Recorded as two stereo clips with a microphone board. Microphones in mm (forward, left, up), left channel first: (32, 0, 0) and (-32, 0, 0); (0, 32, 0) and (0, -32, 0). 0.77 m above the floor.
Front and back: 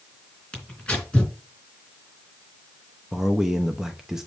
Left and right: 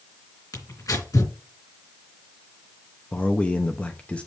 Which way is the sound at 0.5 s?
70° left.